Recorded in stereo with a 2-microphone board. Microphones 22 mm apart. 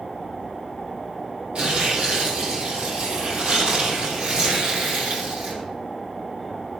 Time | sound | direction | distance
1.6 | tearing paper | 65° right (ahead or behind) | 3.5 m